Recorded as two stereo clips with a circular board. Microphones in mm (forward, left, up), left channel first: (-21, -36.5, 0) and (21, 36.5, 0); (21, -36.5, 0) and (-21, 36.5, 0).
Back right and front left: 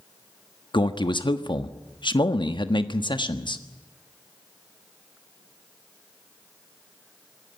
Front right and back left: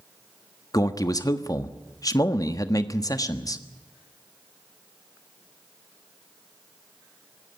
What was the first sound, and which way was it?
A man speaking, 105° right.